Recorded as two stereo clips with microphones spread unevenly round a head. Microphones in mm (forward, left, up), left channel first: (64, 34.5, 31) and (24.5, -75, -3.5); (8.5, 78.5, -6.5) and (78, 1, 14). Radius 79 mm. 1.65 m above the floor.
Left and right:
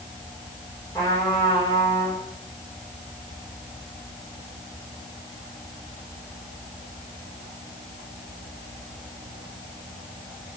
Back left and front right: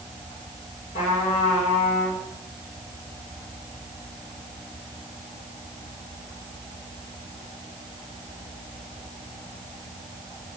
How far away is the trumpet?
About 5.5 m.